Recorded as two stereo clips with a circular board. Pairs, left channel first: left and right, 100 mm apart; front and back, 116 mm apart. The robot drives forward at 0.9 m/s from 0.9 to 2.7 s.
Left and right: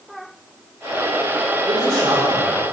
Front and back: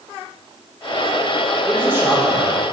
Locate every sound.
1.7 s a man speaking: 105° right, 1.3 m; by 2.6 s 145° right, 1.7 m